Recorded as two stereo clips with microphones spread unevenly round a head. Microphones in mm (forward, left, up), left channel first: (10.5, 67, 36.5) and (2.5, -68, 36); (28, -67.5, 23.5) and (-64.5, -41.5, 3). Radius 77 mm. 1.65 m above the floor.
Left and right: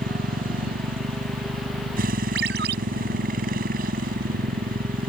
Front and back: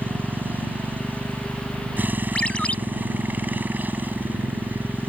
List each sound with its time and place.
0.0 s a motorcycle: 120° right
2.4 s a ringtone: 90° right